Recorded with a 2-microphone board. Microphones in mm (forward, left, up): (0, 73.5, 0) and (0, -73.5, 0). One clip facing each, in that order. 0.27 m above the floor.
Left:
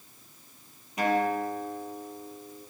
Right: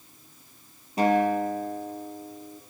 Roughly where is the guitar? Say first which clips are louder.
Right 4 dB; right.